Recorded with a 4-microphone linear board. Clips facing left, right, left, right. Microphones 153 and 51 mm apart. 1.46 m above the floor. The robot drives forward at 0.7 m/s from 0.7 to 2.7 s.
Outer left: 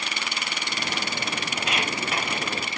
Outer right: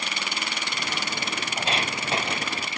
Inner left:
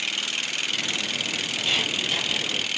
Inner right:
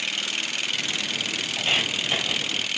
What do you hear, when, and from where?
1.6 s footsteps: 30° right (ahead or behind), 2.0 m; by 2.4 s 25° right (ahead or behind), 2.5 m